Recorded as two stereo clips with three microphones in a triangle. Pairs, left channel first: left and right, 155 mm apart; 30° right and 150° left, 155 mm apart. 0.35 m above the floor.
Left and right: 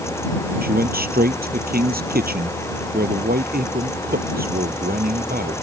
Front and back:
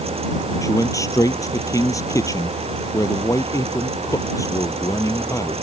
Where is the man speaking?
100° right.